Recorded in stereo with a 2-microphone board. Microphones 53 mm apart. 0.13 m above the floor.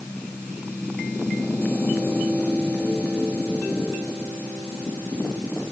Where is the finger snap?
No finger snap in this recording.